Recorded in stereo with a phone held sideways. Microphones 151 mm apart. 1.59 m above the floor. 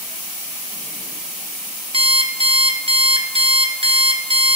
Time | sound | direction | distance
1.9 | an alarm clock | 40° right (ahead or behind) | 0.9 m